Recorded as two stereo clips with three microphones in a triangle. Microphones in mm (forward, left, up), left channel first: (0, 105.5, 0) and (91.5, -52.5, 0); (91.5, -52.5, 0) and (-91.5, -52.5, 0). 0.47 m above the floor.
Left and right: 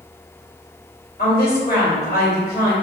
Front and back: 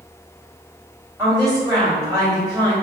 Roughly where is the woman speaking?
Behind left.